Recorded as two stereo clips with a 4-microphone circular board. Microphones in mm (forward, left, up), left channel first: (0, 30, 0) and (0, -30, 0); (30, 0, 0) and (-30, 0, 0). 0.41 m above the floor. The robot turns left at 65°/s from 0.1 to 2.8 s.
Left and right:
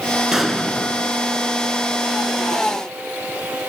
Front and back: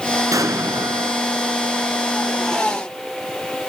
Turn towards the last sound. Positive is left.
turn(degrees=30)